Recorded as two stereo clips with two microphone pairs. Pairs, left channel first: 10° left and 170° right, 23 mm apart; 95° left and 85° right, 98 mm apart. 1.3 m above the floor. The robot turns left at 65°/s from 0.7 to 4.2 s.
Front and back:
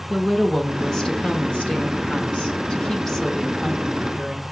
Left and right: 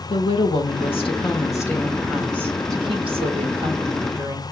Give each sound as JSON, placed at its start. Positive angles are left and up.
{"t": 0.1, "sound": "a woman speaking", "azimuth_deg": 95, "distance_m": 1.4}